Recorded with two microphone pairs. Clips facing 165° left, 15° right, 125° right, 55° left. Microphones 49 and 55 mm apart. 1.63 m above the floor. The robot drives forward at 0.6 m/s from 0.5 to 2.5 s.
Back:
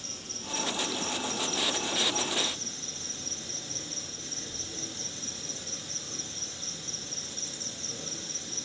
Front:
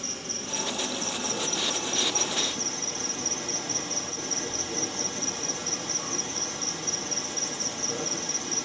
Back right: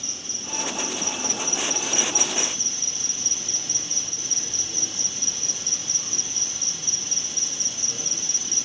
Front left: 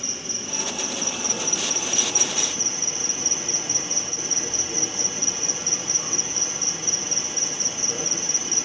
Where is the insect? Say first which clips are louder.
Front 6 dB, front left 4 dB; straight ahead, 2.5 m.